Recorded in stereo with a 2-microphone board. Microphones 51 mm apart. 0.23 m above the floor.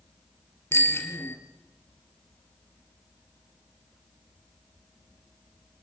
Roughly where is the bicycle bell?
Left.